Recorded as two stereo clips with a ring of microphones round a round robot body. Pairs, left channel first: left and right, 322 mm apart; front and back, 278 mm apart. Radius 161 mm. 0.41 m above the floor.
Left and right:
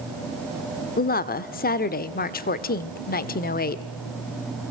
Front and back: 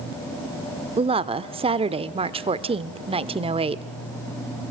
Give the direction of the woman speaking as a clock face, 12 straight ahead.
8 o'clock.